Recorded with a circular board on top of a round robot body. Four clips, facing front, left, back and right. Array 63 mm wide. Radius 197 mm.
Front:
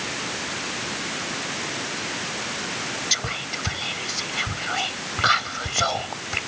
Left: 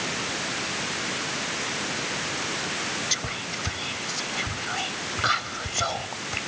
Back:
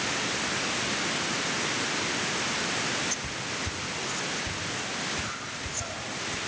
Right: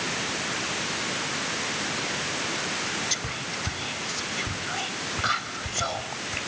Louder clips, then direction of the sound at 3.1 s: Left 1 dB, front 5 dB; 5° left.